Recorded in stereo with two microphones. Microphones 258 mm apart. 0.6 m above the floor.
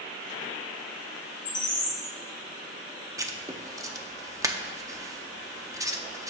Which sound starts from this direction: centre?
Writing, at 3.2 s.